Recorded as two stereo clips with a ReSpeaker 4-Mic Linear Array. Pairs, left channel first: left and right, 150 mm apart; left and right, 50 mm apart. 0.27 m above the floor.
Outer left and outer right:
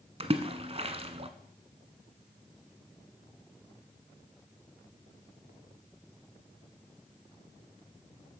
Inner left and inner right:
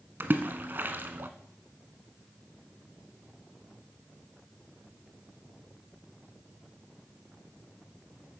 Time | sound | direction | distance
0.2 | a splash | 40° right (ahead or behind) | 1.2 m